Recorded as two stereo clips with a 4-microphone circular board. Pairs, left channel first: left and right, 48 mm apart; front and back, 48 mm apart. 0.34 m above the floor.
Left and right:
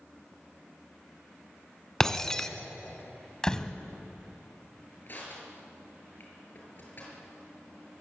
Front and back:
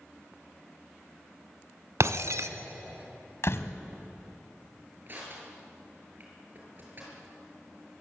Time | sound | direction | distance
2.0 | breaking glass | 165° left | 1.2 m
3.4 | a door slam | 15° left | 1.4 m
5.1 | crushing | 135° left | 7.5 m